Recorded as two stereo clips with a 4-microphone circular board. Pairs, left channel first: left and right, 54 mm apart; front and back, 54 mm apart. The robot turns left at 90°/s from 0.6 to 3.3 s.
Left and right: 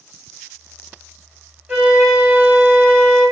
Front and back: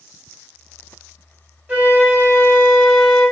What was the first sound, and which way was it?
A flute, 145° right.